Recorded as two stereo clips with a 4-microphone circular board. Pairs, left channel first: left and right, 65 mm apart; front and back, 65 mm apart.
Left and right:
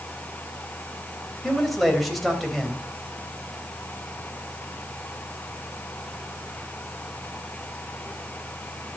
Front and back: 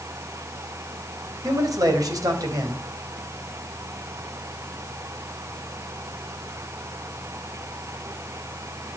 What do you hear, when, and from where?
1.4 s a man speaking: straight behind, 3.5 m